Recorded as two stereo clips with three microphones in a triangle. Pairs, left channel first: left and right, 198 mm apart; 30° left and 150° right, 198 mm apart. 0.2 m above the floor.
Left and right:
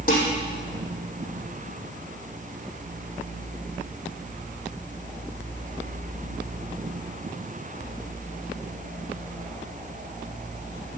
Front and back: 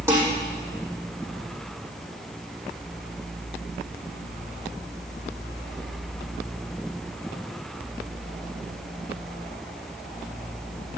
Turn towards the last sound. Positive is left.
turn(degrees=135)